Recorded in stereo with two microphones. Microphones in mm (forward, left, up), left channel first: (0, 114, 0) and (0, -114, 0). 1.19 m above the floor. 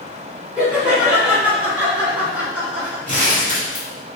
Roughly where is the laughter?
Centre.